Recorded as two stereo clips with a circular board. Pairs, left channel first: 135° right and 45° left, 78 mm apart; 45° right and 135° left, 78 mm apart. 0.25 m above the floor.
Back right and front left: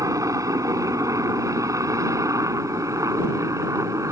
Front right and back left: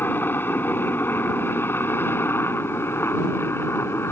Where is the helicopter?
15° left; by 4.1 s 10° left.